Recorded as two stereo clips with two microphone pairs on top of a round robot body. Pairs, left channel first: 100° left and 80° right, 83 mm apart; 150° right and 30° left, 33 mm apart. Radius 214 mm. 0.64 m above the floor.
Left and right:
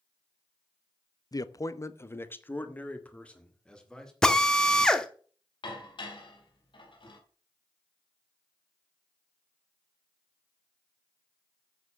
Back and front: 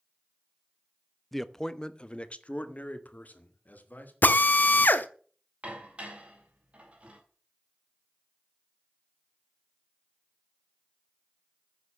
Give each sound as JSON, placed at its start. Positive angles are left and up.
{"t": 1.3, "sound": "a man speaking", "azimuth_deg": 125, "distance_m": 1.0}
{"t": 4.2, "sound": "a drill", "azimuth_deg": -175, "distance_m": 1.0}
{"t": 5.6, "sound": "dishes clattering", "azimuth_deg": 80, "distance_m": 3.5}